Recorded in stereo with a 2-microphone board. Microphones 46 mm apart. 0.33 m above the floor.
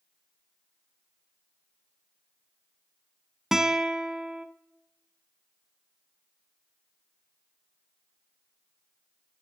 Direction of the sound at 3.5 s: 5° right (ahead or behind).